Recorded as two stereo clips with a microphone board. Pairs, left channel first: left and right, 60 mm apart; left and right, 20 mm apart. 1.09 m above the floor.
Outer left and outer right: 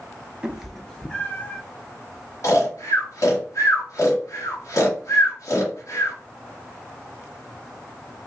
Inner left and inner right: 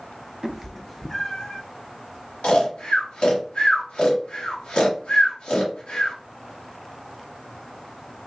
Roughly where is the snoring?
Left.